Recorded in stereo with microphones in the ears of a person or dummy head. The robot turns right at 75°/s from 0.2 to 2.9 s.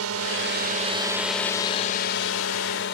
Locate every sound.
0.0 s a drone: 85° right; by 3.0 s 120° left